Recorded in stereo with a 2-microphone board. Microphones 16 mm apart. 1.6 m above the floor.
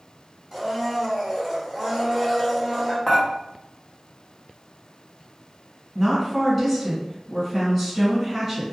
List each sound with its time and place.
0.5 s a blender: 25° right (ahead or behind), 1.5 m
3.1 s dishes clattering: 40° left (ahead or behind), 0.8 m
6.0 s a woman speaking: 10° right (ahead or behind), 1.4 m